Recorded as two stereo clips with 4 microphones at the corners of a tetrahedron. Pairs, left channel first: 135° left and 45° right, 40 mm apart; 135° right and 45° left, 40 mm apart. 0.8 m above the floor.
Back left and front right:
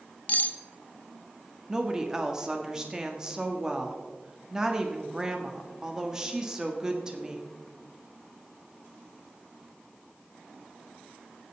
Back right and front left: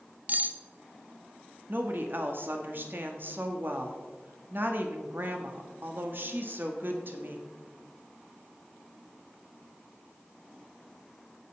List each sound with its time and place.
0.3 s cutlery clinking: 90° left, 0.7 m
1.7 s a woman speaking: 25° left, 1.4 m